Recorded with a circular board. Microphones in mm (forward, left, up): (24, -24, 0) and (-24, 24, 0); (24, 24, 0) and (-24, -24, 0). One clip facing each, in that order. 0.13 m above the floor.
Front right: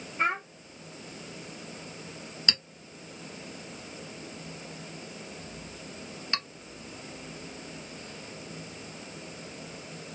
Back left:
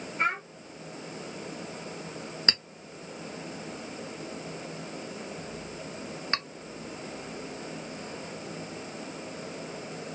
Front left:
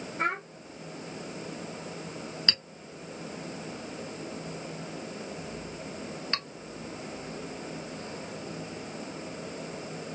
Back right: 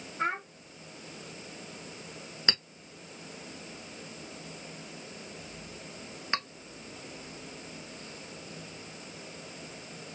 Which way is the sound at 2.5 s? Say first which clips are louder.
Even, back right 1 dB; 165° left.